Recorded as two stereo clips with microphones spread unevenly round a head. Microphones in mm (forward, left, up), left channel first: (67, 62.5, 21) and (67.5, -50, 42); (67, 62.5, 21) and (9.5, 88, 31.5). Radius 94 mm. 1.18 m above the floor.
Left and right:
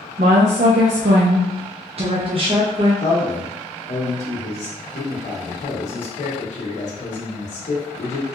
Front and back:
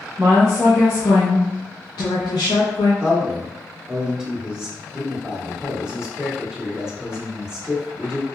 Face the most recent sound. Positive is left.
turn(degrees=80)